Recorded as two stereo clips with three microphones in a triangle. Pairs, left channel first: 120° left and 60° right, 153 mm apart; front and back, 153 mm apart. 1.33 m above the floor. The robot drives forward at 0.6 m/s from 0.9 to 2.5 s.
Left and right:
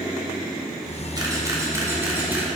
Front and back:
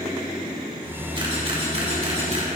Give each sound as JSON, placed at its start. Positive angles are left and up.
{"t": 1.1, "sound": "a camera shutter", "azimuth_deg": -125, "distance_m": 2.0}